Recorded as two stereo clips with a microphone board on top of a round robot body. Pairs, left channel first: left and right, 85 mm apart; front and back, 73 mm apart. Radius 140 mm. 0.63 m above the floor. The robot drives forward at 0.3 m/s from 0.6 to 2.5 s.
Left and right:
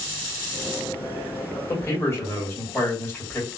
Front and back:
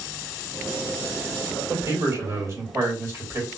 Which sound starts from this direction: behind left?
A man speaking, at 1.7 s.